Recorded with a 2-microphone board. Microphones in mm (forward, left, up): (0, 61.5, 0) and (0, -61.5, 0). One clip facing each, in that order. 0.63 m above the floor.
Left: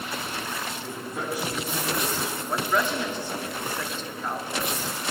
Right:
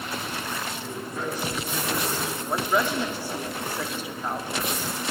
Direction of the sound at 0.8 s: 5° left (ahead or behind).